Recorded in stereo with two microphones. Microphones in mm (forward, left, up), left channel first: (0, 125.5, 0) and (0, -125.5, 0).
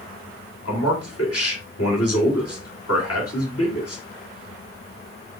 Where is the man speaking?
75° left (ahead or behind), 2.0 m.